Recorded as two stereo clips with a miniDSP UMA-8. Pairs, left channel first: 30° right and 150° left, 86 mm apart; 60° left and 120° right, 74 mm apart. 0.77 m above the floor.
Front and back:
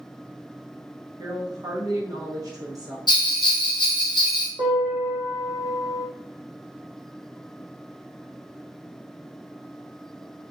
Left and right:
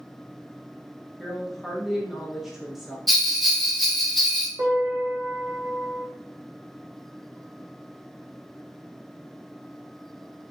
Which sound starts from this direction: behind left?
A woman speaking, at 1.2 s.